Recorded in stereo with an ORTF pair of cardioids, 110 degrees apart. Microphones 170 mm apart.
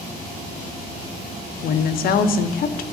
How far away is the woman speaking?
About 0.8 m.